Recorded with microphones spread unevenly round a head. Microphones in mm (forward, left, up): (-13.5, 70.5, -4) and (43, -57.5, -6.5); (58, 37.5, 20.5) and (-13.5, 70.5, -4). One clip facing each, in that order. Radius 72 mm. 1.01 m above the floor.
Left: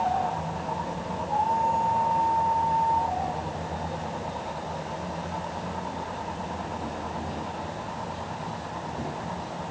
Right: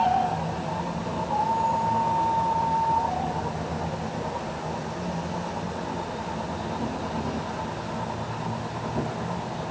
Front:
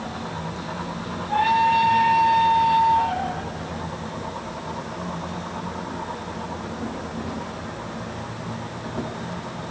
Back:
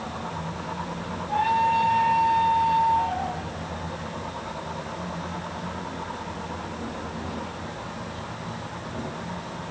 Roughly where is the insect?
Right.